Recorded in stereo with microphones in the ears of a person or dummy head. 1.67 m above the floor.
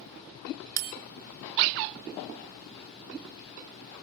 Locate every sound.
0.8 s a bell: 45° right (ahead or behind), 0.6 m